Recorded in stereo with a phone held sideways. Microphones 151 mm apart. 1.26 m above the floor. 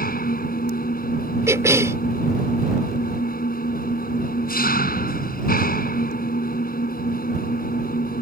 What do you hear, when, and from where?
0.0 s an engine running: 85° left
1.5 s a cough: 20° right (ahead or behind)